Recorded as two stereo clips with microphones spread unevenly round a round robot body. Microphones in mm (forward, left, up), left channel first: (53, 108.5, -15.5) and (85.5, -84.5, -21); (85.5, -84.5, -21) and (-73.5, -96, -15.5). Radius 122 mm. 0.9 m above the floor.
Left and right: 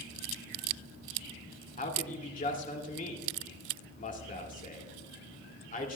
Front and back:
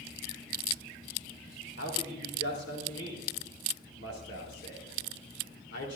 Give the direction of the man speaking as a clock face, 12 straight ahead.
10 o'clock.